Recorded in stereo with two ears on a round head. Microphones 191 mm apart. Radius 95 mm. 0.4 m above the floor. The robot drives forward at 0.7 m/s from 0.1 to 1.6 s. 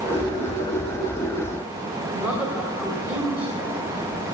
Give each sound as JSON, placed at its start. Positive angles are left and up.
{"t": 2.1, "sound": "a woman speaking", "side_deg": -10, "distance_m": 2.5}